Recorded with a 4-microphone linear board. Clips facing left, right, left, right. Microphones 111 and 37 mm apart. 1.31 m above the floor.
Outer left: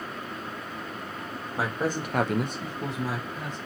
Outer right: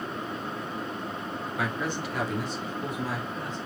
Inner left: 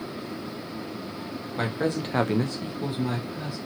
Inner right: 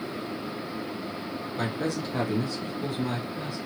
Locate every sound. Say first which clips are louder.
1.6 s a man speaking: outer left 4 dB, inner left 3 dB; 30° left (ahead or behind), 1.0 m; by 3.6 s 15° left (ahead or behind), 1.5 m